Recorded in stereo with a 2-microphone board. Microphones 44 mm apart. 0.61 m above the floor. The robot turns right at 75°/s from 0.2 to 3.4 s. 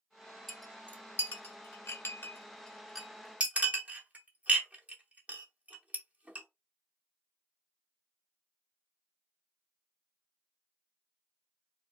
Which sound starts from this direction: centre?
A clink, at 0.5 s.